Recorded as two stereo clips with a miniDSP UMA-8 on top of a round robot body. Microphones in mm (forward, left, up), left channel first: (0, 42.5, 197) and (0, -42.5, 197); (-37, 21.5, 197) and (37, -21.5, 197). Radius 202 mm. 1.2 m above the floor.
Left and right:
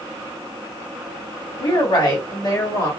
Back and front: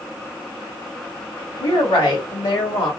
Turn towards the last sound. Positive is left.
turn(degrees=140)